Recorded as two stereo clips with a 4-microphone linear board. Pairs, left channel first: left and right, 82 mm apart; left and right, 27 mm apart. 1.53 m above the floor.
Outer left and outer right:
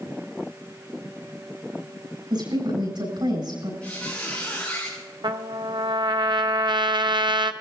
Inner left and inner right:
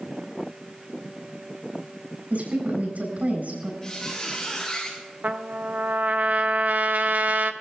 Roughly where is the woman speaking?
Right.